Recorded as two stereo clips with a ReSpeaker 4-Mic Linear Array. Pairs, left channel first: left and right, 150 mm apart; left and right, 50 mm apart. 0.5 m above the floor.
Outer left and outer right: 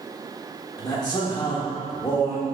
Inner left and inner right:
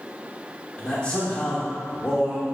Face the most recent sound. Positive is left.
turn(degrees=25)  # may be behind; listen again after turning